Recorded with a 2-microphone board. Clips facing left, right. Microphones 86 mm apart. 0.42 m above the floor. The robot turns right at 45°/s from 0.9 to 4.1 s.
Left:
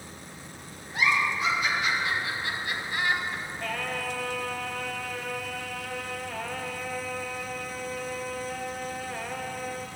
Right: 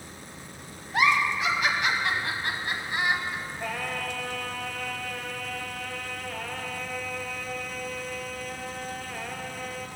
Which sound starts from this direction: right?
A giggle, at 0.9 s.